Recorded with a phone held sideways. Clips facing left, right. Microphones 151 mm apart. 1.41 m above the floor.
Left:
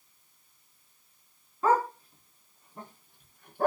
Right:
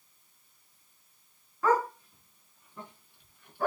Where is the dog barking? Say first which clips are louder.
Left 1 dB; 30° left (ahead or behind), 3 m; by 3.7 s 55° left (ahead or behind), 4 m.